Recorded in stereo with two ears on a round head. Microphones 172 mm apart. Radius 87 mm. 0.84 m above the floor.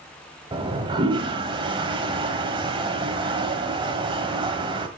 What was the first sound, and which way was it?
A toilet flushing, 25° right (ahead or behind).